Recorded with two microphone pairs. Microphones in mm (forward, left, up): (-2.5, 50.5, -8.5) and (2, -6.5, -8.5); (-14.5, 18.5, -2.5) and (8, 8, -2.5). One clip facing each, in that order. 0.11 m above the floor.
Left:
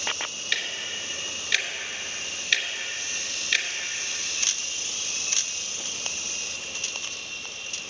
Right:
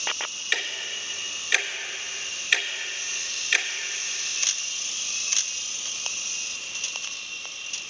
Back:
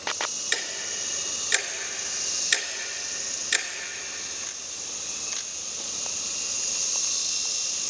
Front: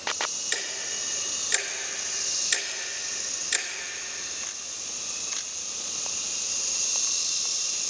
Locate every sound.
0.5 s ticking: 150° right, 0.9 m